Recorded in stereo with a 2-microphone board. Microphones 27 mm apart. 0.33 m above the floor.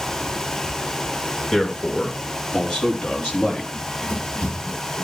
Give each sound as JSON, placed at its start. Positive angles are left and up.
{"t": 1.5, "sound": "a man speaking", "side_deg": 35, "distance_m": 4.5}
{"t": 3.7, "sound": "running footsteps", "side_deg": 85, "distance_m": 10.0}